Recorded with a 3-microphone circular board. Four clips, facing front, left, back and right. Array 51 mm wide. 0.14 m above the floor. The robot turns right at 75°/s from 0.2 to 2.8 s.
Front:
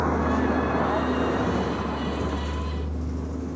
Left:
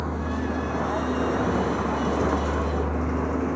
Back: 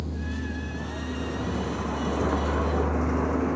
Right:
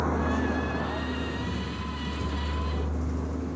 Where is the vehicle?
10° right; by 3.5 s 135° left.